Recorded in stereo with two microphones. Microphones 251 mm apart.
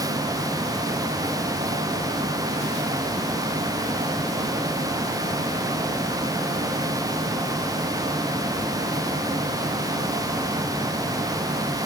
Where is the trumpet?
I don't hear a trumpet.